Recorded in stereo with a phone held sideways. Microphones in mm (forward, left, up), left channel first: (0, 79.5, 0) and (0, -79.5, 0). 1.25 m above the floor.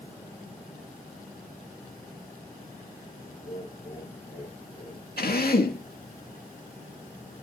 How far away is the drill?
About 2.5 m.